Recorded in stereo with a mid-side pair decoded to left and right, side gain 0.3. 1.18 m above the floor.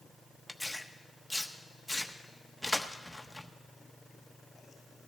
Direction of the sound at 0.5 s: 5° left.